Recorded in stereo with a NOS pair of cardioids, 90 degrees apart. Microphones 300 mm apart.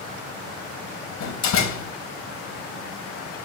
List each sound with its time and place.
1.2 s a door slam: 65° left, 2 m